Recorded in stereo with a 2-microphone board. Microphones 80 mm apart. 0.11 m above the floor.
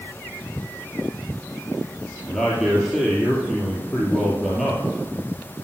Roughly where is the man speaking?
Centre.